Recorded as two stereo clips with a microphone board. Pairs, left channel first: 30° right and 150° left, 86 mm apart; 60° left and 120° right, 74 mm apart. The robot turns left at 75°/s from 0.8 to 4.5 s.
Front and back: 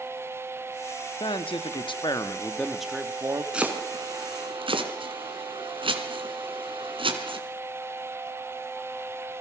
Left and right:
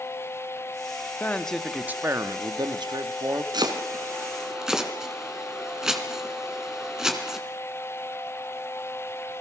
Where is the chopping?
130° right, 3 m; by 7.4 s 160° left, 3 m.